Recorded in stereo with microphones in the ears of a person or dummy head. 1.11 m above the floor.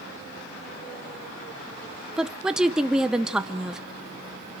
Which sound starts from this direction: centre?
A woman speaking, at 2.2 s.